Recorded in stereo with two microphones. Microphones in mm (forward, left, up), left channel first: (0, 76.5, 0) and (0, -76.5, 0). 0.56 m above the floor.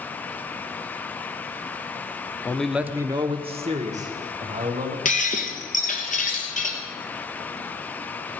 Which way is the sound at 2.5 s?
15° left (ahead or behind).